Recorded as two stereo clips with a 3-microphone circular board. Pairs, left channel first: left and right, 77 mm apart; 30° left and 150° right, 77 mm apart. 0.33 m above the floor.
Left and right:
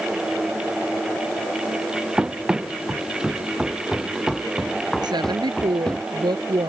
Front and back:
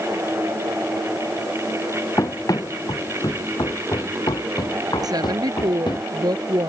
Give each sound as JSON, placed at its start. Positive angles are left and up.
{"t": 2.2, "sound": "running footsteps", "azimuth_deg": -15}
{"t": 5.0, "sound": "a woman speaking", "azimuth_deg": -115}